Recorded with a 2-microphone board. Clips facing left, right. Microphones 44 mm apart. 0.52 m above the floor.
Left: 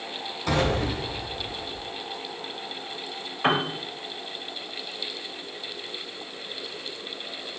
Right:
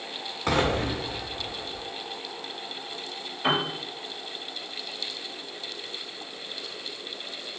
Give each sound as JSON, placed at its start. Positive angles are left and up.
{"t": 0.5, "sound": "an explosion", "side_deg": -50, "distance_m": 1.1}
{"t": 3.4, "sound": "a piano", "side_deg": 50, "distance_m": 0.6}